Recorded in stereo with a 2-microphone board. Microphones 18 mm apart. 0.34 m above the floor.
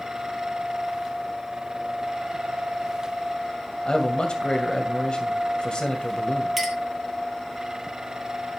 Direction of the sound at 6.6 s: 5° right (ahead or behind).